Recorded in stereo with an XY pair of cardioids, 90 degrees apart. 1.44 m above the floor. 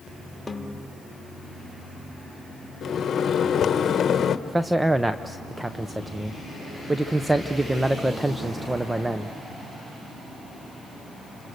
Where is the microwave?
60° left, 1.1 m.